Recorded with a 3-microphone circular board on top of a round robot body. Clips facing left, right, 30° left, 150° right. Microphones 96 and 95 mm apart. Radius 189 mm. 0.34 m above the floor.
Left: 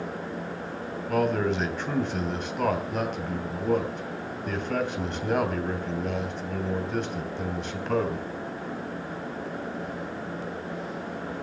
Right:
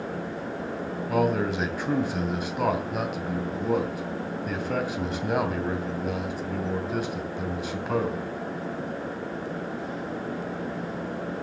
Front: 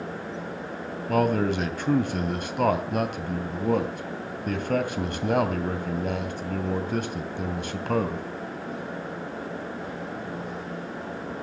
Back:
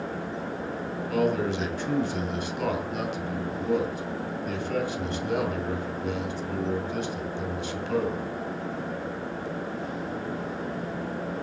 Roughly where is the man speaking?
Ahead.